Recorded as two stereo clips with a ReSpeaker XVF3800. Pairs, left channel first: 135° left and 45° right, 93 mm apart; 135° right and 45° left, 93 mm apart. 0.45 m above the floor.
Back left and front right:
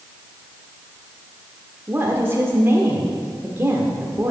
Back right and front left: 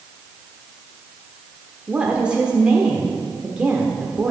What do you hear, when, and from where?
1.9 s a woman speaking: 20° right, 1.2 m